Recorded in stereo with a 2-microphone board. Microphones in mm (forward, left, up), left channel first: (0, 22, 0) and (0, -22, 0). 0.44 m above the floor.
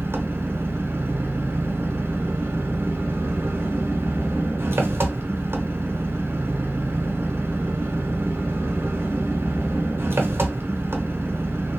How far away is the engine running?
About 0.7 m.